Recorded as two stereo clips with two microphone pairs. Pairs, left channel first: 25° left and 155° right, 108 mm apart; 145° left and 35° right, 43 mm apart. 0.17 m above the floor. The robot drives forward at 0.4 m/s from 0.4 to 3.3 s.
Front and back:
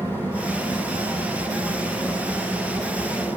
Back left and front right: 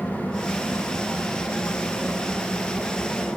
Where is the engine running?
145° left, 4 m; by 3.4 s 155° left, 5 m.